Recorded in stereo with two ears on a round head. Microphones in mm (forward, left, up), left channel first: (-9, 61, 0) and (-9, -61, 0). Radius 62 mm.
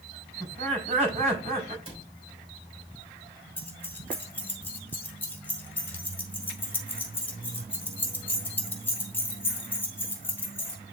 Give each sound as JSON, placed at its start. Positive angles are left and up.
{"t": 0.4, "sound": "laughter", "side_deg": -50, "distance_m": 4.5}
{"t": 1.9, "sound": "a cupboard door", "side_deg": -40, "distance_m": 3.5}
{"t": 3.6, "sound": "keys jangling", "side_deg": 15, "distance_m": 2.0}